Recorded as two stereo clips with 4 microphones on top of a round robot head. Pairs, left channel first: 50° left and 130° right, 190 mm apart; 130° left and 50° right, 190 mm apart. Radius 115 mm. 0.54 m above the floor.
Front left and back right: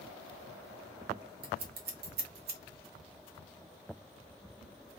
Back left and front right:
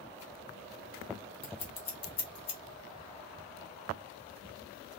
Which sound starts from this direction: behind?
Scissors, at 1.4 s.